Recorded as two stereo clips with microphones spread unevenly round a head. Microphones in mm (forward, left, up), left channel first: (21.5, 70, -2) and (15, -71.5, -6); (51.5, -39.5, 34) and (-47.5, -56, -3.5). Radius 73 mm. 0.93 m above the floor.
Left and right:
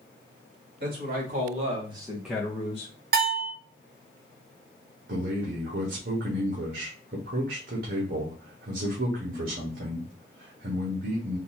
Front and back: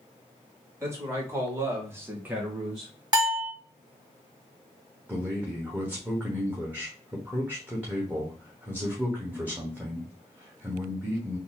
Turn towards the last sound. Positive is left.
turn(degrees=-105)